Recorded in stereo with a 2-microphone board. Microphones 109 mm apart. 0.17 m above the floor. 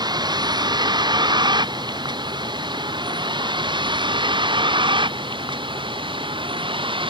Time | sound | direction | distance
0.0 | a vehicle | 40° right (ahead or behind) | ?